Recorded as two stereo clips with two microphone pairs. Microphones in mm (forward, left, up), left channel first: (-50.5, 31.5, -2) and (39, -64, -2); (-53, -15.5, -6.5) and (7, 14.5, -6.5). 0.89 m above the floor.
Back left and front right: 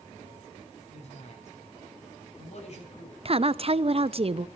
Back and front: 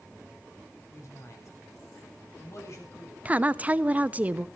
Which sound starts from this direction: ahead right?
A woman speaking, at 3.2 s.